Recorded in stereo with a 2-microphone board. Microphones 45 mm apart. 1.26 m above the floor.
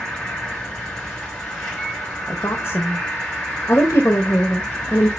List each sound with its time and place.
0.0 s an insect: 20° left (ahead or behind), 6.5 m
2.3 s a woman speaking: 90° left, 1.5 m